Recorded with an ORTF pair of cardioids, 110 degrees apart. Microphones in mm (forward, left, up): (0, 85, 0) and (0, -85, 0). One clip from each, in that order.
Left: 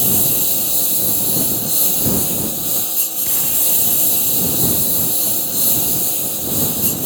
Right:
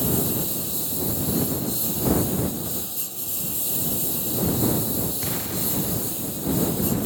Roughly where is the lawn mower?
Ahead left.